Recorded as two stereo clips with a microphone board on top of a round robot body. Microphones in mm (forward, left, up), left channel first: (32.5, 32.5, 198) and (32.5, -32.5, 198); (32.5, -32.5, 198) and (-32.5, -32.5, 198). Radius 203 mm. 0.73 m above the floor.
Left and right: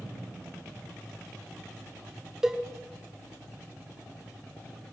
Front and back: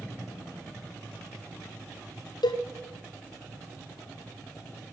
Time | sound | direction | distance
2.4 | a cowbell | 5° right | 1.0 m